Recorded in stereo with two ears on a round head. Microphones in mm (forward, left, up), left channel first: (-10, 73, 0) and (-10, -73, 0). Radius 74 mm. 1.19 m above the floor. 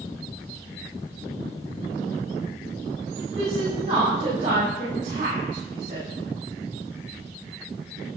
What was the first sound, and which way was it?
A woman speaking, 40° right (ahead or behind).